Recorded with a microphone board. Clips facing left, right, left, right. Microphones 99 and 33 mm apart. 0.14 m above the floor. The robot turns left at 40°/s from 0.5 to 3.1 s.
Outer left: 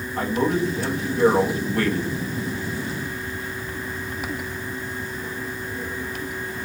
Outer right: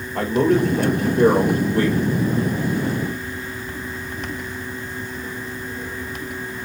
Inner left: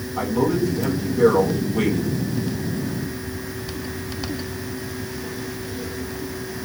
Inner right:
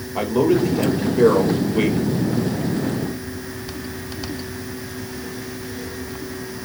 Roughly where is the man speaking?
Right.